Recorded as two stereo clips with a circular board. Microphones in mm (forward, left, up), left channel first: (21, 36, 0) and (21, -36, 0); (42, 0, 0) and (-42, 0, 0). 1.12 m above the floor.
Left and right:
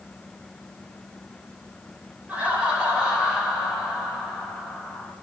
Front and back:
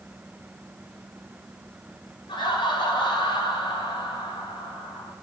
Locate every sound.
2.3 s laughter: 20° right, 6 m; by 5.1 s straight ahead, 6.5 m